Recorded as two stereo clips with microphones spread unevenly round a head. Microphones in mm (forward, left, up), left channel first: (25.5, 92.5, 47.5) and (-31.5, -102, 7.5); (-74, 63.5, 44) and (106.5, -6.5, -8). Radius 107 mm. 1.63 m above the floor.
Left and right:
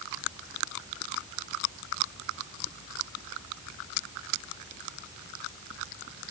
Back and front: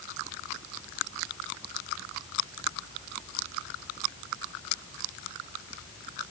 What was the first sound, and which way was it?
Only background noise.